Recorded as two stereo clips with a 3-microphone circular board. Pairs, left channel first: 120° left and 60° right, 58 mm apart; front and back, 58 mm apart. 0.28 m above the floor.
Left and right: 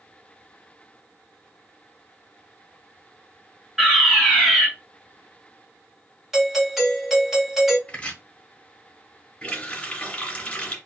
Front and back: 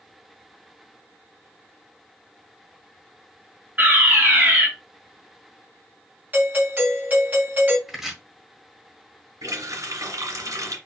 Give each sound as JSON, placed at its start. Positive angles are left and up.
{"t": 3.8, "sound": "a fire alarm", "azimuth_deg": -140, "distance_m": 3.0}
{"t": 6.3, "sound": "a doorbell", "azimuth_deg": -145, "distance_m": 2.5}
{"t": 7.9, "sound": "chopping", "azimuth_deg": 100, "distance_m": 1.3}
{"t": 9.4, "sound": "a running tap", "azimuth_deg": -170, "distance_m": 2.0}